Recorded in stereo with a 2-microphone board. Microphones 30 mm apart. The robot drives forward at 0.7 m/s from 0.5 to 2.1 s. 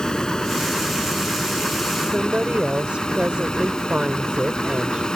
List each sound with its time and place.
0.0 s running water: 25° left (ahead or behind); by 5.2 s 30° left (ahead or behind)
2.0 s a woman speaking: 40° right (ahead or behind); by 5.1 s 35° right (ahead or behind)